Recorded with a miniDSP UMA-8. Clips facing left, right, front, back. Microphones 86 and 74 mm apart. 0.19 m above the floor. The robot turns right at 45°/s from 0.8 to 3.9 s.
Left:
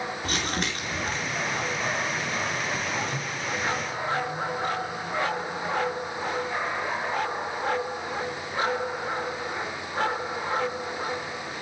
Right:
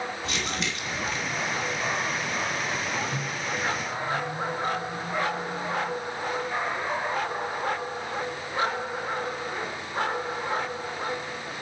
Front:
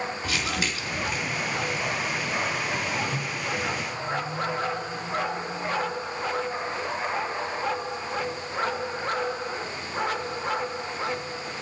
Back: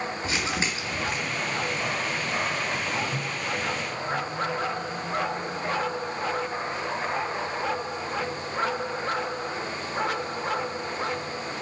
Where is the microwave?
115° right, 1.3 m; by 6.0 s 80° right, 1.3 m.